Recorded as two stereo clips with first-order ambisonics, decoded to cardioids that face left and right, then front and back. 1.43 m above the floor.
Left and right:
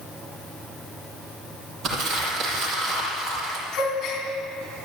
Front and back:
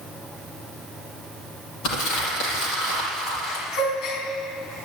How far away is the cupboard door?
I don't hear a cupboard door.